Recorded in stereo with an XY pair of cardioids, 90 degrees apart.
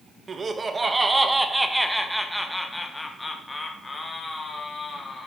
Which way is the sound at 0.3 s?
40° right.